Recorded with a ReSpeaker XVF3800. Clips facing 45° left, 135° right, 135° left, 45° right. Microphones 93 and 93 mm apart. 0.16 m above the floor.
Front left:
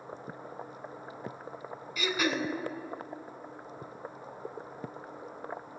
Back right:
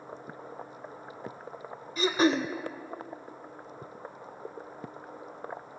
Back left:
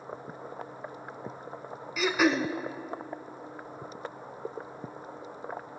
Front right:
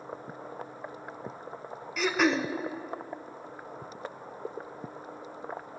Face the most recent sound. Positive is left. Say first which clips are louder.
# back right 6 dB, back left 1 dB
turn(degrees=-140)